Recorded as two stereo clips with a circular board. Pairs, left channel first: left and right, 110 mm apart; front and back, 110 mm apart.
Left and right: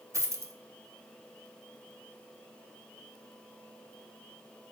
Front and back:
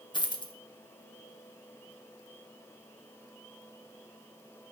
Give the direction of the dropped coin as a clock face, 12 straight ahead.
1 o'clock.